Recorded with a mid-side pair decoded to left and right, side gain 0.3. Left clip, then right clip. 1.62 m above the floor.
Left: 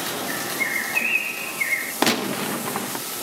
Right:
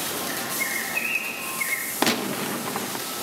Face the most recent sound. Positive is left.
turn(degrees=30)